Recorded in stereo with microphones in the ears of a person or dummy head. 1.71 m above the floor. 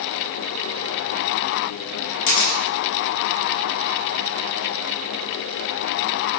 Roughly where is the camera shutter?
Left.